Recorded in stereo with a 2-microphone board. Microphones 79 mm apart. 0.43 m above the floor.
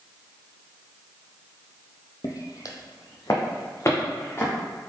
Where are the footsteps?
45° left (ahead or behind), 0.5 m; by 4.5 s 30° left (ahead or behind), 1.6 m.